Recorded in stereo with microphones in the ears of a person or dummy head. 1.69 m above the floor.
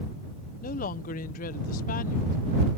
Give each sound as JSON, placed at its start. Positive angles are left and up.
{"t": 0.6, "sound": "a woman speaking", "side_deg": 45}